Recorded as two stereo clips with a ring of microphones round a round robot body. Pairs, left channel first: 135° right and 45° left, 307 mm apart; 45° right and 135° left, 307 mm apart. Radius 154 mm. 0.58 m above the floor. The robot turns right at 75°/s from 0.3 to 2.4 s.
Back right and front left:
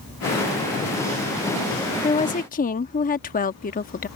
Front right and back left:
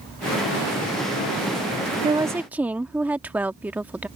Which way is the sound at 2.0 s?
175° right.